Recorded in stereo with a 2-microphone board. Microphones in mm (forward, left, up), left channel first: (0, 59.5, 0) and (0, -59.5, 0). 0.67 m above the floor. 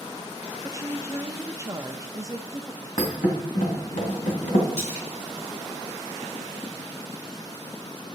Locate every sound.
0.6 s a woman speaking: 25° right (ahead or behind), 0.5 m
3.0 s a thud: 80° left, 1.8 m
4.8 s a splash: 70° left (ahead or behind), 5 m